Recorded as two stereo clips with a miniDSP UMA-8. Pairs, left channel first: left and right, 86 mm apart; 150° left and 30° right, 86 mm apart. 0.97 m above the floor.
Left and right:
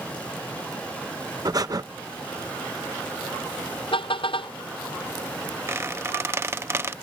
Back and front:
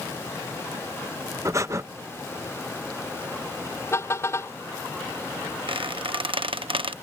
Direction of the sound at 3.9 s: 90° left.